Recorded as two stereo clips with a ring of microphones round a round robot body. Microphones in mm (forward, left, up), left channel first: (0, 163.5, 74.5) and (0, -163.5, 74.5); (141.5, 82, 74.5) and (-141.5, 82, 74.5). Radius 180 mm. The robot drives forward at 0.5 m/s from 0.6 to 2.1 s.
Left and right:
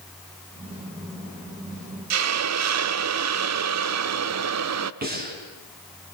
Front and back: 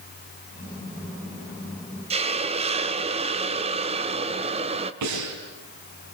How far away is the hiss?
About 1.1 m.